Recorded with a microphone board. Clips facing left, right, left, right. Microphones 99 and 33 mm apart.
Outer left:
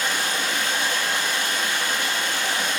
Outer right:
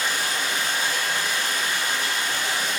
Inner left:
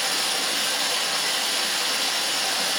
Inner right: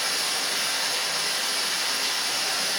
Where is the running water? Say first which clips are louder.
Outer left 1 dB, inner left 2 dB; 75° left (ahead or behind), 1.3 m.